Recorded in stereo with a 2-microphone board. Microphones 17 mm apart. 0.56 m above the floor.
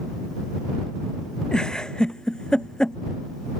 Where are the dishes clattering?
No dishes clattering in this recording.